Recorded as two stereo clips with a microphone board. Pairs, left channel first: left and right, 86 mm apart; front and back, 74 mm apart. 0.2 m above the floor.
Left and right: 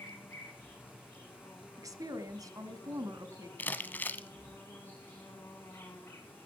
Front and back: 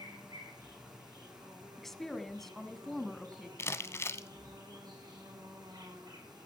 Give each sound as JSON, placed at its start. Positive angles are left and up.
{"t": 0.0, "sound": "an insect", "azimuth_deg": 155, "distance_m": 3.5}
{"t": 1.8, "sound": "a woman speaking", "azimuth_deg": -85, "distance_m": 1.4}
{"t": 3.6, "sound": "crumpling", "azimuth_deg": 30, "distance_m": 0.7}